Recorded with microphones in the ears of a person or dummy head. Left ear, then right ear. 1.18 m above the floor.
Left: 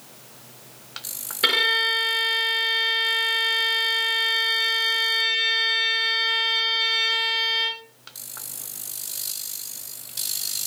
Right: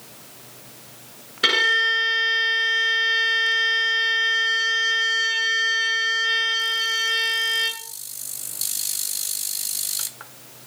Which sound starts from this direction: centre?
A violin, at 1.4 s.